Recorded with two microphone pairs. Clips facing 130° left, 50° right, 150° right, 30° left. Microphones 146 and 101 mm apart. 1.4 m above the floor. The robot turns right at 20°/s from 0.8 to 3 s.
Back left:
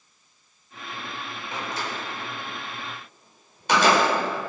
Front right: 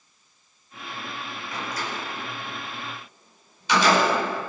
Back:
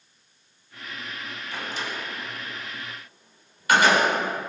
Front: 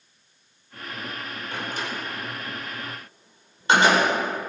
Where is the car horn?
No car horn in this recording.